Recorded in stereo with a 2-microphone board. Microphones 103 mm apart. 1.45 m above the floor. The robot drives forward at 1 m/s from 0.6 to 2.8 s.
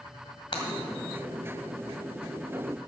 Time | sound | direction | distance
0.5 | breaking glass | 60° left (ahead or behind) | 2 m